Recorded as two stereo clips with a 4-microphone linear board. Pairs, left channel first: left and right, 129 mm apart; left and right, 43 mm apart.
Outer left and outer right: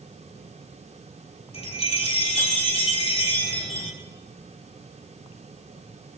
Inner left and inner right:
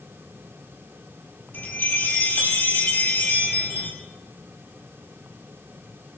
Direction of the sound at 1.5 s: 50° left (ahead or behind).